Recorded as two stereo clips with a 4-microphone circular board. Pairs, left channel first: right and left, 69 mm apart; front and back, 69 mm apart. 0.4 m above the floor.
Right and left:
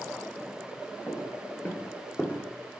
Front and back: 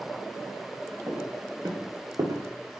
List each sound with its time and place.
1.1 s footsteps: 145° right, 1.3 m; by 2.4 s 165° right, 0.7 m